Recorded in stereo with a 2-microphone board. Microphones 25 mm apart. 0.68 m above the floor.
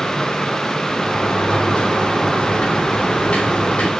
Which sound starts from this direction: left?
A sliding door, at 0.9 s.